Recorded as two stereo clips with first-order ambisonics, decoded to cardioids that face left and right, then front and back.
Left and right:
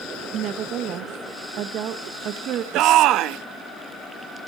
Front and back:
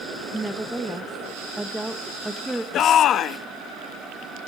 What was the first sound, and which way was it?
A woman speaking, 95° right.